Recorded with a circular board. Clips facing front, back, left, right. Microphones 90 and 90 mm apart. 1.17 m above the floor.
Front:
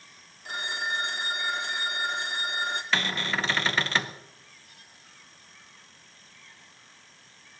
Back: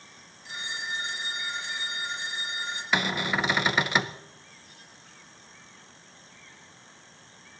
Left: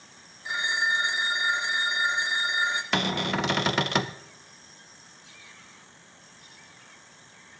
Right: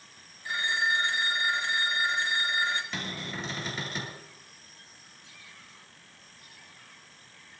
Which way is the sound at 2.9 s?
105° left.